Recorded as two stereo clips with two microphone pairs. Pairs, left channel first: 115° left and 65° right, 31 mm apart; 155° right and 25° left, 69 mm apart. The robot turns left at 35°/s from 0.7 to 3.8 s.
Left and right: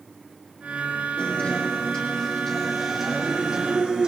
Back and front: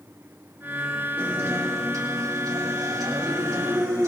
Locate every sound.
1.2 s a guitar: 85° left, 2.5 m; by 4.1 s 5° right, 2.5 m